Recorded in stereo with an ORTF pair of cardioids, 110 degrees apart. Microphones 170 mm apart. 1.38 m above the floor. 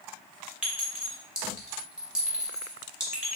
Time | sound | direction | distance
0.6 | a clink | 5° right | 1.0 m